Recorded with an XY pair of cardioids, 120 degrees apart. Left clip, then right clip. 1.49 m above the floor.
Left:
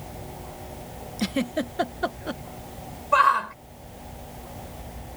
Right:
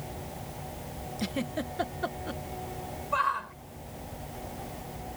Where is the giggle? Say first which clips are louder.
Left 7 dB; 30° left.